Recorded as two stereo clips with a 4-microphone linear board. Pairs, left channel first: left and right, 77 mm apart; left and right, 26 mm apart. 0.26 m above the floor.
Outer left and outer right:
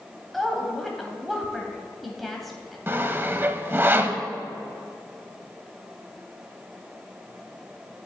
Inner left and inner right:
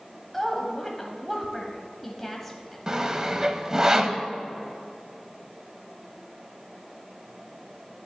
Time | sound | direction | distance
0.3 | a woman speaking | centre (ahead or behind) | 1.2 m
2.9 | sawing | 30° right (ahead or behind) | 0.5 m